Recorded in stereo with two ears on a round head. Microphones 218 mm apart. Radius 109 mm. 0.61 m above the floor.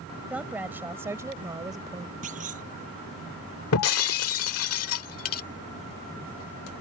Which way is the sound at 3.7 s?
65° left (ahead or behind).